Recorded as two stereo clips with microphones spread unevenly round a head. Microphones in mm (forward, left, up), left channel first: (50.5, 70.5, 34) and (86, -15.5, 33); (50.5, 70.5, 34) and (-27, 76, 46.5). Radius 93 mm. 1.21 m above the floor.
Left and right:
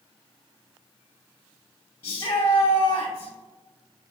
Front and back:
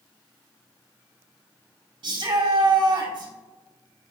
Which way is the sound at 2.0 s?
Straight behind.